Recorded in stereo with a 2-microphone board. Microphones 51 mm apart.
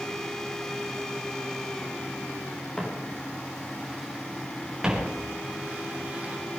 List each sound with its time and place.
2.8 s footsteps: 15° left (ahead or behind), 5.5 m; by 6.6 s 30° right (ahead or behind), 7.5 m